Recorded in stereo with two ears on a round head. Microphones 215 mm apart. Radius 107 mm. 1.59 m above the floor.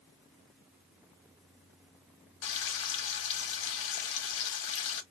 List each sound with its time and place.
2.4 s frying: 55° left (ahead or behind), 1.4 m